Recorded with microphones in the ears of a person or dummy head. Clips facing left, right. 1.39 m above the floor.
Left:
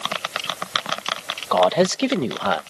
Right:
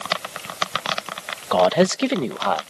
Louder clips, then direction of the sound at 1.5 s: Right 1 dB; 10° right (ahead or behind).